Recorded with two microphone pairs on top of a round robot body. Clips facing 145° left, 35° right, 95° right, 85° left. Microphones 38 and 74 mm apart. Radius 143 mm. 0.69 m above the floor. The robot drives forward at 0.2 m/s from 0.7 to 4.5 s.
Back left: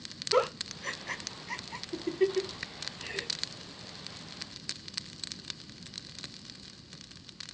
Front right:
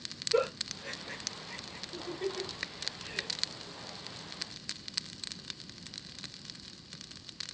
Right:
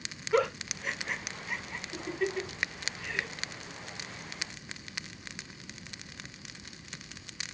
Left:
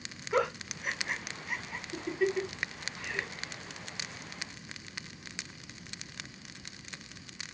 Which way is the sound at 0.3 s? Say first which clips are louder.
Back left 2 dB, right 2 dB; 165° left.